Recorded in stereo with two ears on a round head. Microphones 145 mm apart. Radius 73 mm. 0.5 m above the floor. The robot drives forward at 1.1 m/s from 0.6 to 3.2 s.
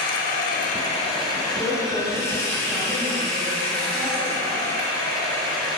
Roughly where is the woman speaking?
Centre.